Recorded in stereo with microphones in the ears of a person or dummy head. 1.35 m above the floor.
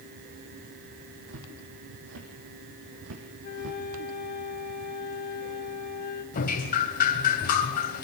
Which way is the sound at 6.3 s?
45° left (ahead or behind).